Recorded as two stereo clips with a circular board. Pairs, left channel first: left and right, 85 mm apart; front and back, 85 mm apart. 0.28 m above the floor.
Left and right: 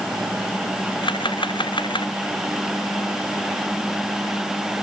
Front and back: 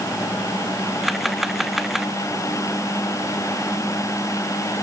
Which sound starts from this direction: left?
A camera shutter, at 1.0 s.